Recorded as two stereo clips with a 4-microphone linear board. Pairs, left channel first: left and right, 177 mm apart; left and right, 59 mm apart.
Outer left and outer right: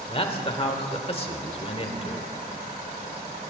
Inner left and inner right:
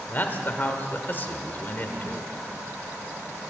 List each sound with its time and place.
0.1 s a man speaking: 35° left (ahead or behind), 1.6 m